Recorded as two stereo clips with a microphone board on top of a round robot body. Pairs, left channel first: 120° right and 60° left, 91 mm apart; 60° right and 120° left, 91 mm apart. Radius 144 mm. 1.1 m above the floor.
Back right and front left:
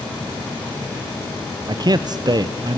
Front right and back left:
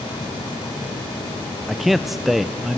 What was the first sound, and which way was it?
A man speaking, 35° left.